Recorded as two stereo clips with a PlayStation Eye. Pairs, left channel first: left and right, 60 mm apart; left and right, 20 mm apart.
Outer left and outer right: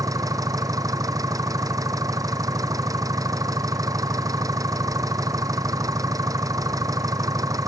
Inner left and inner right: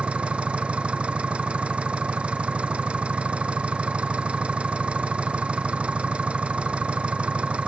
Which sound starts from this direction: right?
An engine running, at 0.0 s.